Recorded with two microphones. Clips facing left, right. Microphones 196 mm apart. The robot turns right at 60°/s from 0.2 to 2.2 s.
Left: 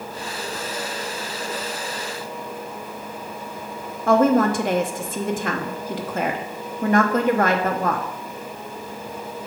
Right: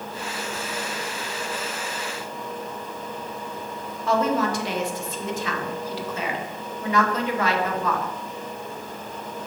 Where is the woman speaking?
50° left (ahead or behind), 1.0 m.